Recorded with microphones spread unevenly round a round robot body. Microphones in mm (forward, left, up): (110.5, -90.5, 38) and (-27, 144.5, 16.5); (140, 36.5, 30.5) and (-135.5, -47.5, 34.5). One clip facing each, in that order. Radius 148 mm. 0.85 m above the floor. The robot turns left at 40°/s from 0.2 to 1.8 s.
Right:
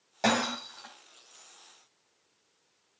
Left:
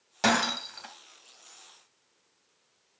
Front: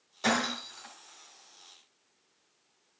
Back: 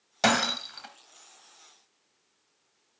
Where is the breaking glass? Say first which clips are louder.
Left 1 dB, back 3 dB; 165° right, 2.5 m; by 0.9 s 170° left, 2.5 m.